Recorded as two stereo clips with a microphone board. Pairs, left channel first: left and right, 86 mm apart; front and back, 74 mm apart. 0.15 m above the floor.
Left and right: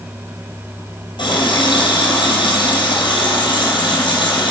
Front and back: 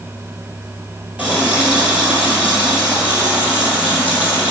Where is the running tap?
110° left, 3 m.